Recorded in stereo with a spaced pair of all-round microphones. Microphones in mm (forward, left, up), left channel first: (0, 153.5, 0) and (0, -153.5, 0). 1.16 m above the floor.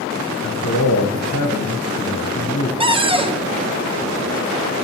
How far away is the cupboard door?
About 0.6 m.